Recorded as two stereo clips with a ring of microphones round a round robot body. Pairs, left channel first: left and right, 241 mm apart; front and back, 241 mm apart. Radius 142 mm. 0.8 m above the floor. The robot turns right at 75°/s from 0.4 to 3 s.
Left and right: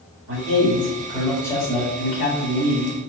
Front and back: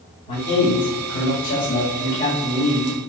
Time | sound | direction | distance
0.3 | a man speaking | 60° right | 1.6 m